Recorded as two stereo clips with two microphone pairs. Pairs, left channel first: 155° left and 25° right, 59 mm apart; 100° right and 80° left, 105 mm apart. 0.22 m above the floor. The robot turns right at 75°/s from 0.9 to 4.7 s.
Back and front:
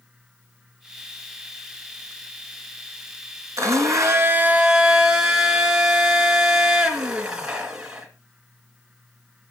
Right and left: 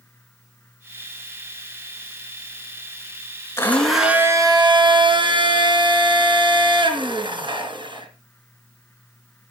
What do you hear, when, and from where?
3.6 s a blender: 35° right, 3.5 m; by 8.1 s 50° left, 3.5 m